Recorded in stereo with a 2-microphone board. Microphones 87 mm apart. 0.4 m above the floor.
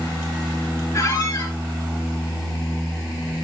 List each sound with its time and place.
0.9 s a squeak: 45° left (ahead or behind), 2 m